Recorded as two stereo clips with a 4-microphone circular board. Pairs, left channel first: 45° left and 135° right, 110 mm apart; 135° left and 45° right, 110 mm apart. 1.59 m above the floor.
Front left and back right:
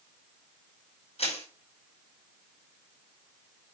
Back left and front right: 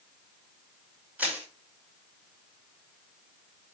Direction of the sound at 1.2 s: 30° left.